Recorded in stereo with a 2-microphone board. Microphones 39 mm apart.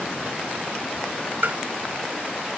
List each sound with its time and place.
1.4 s tapping: 55° right (ahead or behind)